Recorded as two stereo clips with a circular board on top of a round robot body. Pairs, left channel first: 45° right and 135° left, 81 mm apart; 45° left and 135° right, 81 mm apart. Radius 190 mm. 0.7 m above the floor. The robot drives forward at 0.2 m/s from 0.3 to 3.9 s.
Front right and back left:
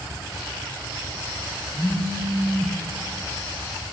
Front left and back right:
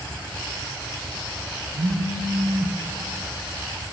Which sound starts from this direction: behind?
A phone buzzing, at 1.8 s.